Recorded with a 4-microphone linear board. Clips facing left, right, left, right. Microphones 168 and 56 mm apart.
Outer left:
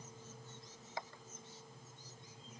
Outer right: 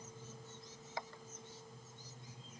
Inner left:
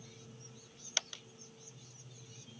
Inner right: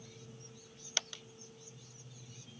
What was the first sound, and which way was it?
Only background noise.